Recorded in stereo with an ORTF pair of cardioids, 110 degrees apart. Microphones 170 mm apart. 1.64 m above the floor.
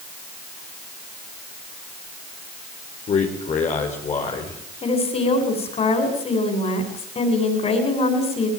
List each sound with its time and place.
3.1 s a man speaking: 40° left, 4.5 m
4.8 s a woman speaking: 35° left, 8.5 m